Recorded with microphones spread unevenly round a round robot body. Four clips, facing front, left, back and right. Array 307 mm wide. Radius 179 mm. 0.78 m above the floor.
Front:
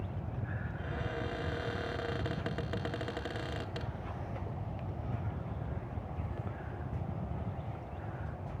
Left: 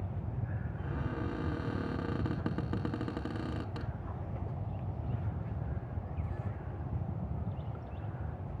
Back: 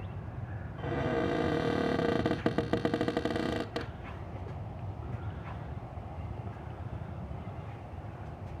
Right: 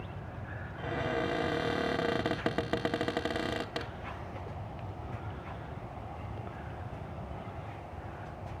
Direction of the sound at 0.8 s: 175° left.